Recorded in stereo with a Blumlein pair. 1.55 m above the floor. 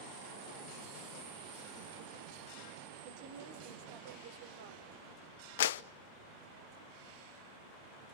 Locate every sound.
3.0 s a woman speaking: 50° right, 6.5 m
5.6 s a clap: 55° left, 0.6 m